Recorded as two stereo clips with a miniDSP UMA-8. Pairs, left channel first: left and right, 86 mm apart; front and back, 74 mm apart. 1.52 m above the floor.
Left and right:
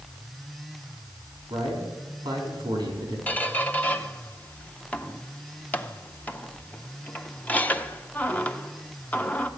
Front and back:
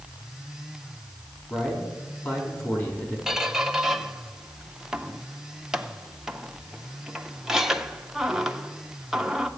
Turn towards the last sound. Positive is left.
turn(degrees=110)